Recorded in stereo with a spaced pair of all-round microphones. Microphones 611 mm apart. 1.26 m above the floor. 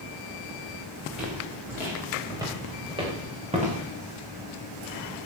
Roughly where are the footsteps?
Centre.